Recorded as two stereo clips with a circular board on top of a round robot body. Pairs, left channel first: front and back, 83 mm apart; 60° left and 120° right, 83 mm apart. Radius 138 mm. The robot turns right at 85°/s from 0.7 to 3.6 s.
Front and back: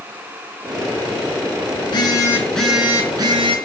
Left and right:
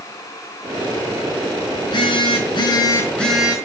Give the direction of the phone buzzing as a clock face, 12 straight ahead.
11 o'clock.